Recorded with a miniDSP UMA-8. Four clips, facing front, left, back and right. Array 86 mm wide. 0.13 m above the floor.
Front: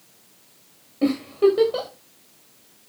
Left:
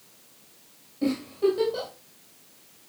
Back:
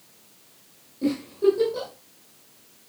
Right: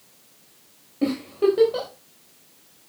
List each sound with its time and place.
1.0 s a giggle: 40° right, 7 m